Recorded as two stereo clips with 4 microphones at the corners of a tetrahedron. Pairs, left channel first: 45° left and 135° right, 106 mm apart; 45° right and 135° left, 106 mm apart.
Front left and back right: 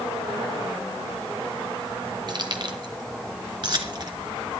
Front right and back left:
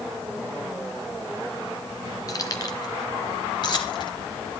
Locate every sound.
2.3 s keys jangling: 95° right, 2 m; by 4.2 s 90° right, 3.5 m